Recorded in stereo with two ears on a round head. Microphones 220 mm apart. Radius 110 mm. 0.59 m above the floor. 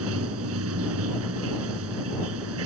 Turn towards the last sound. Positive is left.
turn(degrees=-65)  # may be behind; listen again after turning